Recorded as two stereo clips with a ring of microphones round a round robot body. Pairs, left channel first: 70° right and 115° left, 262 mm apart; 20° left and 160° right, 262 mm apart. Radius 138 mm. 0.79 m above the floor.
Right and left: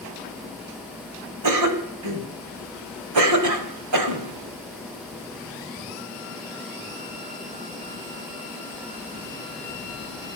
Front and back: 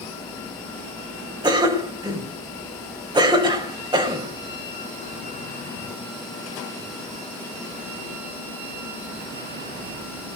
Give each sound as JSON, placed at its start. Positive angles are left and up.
{"t": 1.4, "sound": "a cough", "azimuth_deg": 130, "distance_m": 3.5}